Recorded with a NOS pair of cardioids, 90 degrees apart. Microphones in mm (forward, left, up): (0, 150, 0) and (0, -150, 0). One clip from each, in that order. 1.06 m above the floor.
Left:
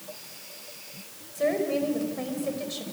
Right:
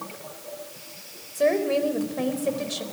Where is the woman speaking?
30° right, 4 m.